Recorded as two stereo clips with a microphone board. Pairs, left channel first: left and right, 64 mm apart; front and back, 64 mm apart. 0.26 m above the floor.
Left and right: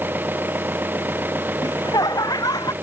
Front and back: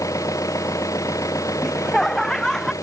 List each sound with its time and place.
0.0 s an engine running: 30° right
1.6 s laughter: 85° left